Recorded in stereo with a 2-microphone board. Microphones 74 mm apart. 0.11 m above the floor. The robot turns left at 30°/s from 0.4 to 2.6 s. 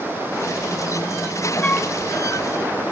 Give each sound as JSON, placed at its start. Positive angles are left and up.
{"t": 1.6, "sound": "a flute", "side_deg": 20, "distance_m": 0.7}